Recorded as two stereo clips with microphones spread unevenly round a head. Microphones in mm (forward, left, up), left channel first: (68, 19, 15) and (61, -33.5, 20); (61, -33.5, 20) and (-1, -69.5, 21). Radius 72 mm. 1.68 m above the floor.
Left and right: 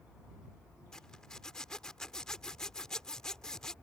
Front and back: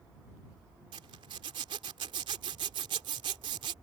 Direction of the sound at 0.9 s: 170° left.